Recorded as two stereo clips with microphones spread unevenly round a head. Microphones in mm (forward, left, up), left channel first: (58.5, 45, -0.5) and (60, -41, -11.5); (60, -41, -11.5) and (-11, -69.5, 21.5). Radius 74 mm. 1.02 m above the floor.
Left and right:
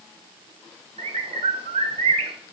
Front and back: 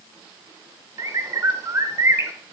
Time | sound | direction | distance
1.0 | a bird | 120° right | 1.4 m